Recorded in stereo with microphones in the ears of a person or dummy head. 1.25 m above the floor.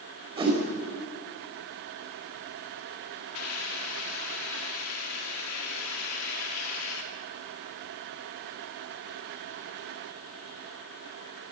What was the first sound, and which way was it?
A whoosh, 30° right (ahead or behind).